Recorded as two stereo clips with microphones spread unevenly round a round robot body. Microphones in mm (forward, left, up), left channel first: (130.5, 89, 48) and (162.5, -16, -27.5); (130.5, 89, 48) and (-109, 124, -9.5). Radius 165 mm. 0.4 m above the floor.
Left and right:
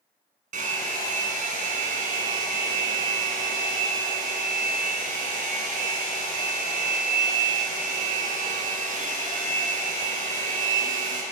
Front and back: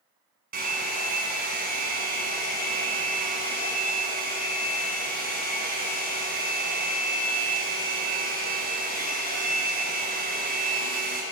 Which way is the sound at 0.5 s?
125° right.